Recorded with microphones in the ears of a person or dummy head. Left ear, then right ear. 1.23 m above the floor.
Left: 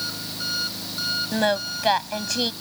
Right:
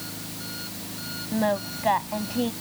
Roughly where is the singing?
Left.